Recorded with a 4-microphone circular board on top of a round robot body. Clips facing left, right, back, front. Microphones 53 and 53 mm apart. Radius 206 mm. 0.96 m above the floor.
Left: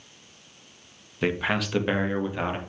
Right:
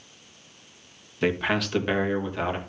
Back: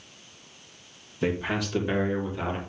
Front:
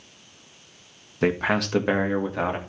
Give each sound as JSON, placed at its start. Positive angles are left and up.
{"t": 1.2, "sound": "a man speaking", "azimuth_deg": 0, "distance_m": 2.0}